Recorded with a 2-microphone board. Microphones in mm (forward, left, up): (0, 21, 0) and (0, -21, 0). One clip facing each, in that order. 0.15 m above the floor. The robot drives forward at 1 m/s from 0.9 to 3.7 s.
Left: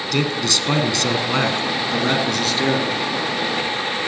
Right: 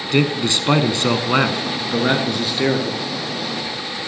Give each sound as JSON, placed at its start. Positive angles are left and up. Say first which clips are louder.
{"t": 0.1, "sound": "a man speaking", "louder": "right 3 dB", "side_deg": -25, "distance_m": 1.1}